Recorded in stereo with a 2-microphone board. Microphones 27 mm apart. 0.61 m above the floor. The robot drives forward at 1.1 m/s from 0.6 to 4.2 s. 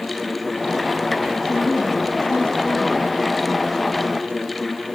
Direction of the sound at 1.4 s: 20° left (ahead or behind).